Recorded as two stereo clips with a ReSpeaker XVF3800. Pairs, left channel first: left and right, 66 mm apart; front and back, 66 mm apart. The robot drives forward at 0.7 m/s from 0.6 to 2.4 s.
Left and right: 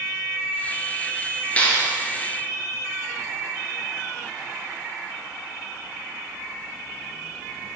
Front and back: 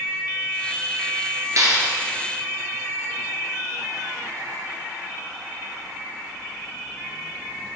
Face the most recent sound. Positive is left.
turn(degrees=160)